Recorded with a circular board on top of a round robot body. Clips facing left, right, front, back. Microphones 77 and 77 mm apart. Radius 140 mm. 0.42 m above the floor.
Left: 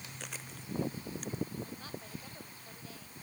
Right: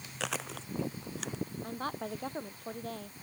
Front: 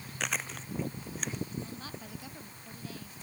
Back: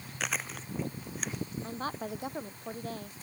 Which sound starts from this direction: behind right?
A woman speaking, at 1.6 s.